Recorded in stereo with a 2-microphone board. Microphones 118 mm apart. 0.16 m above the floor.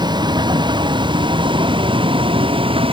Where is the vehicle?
35° right (ahead or behind); by 2.9 s 45° right (ahead or behind).